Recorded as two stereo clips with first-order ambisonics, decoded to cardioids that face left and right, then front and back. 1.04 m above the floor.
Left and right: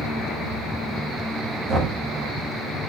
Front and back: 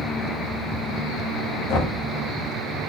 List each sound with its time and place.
1.7 s knocking: 25° right, 1.4 m